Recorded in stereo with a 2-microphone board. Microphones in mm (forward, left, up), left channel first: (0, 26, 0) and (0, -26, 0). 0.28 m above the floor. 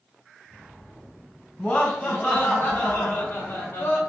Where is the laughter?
20° left (ahead or behind), 1.5 m; by 4.0 s 45° left (ahead or behind), 1.6 m.